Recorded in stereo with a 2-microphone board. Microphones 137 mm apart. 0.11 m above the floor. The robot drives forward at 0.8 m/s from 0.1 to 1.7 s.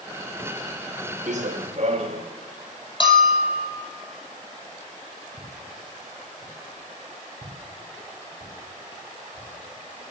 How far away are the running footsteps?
About 1.2 m.